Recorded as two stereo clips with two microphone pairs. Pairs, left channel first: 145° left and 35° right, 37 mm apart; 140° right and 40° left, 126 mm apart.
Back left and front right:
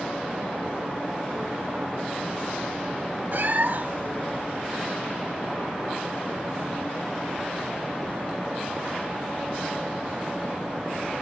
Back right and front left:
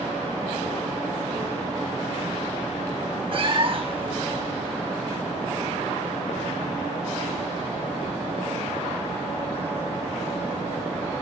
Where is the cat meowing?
Straight ahead, 0.9 m.